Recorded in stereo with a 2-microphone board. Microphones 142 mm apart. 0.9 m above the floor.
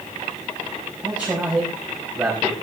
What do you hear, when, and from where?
1.0 s a man speaking: 10° right (ahead or behind), 5.5 m